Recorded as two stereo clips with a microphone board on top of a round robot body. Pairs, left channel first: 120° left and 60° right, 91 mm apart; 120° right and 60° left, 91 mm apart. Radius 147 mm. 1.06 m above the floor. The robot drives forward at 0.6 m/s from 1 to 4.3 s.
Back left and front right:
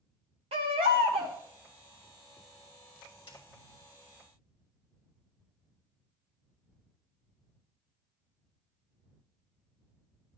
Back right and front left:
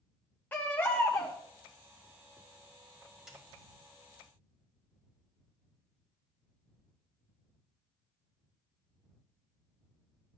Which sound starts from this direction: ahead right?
A baby crying, at 0.5 s.